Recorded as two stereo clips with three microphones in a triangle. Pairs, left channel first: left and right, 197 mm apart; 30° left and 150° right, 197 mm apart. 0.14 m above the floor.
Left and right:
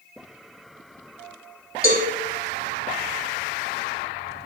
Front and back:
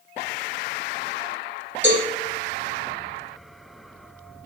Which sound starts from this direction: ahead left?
A cowbell, at 1.8 s.